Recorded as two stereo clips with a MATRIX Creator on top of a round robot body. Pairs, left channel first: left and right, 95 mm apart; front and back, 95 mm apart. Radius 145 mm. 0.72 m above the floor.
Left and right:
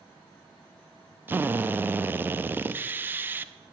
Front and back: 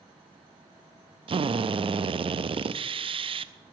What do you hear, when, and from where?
1.3 s a drill: 160° right, 0.5 m